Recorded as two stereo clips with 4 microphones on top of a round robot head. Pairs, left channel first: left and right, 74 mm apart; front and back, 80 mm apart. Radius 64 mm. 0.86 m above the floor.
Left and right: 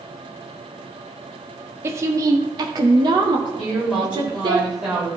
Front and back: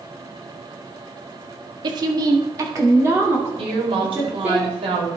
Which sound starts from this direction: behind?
A woman speaking, at 3.6 s.